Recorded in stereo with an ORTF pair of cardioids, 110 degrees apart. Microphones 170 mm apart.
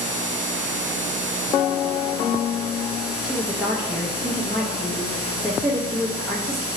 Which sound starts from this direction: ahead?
A woman speaking, at 3.2 s.